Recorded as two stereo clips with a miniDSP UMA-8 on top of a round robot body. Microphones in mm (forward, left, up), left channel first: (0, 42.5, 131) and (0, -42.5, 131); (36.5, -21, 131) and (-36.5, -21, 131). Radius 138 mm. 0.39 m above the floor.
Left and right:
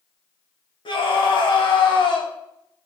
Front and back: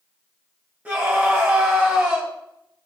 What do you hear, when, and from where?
0.8 s a scream: 110° left, 3.5 m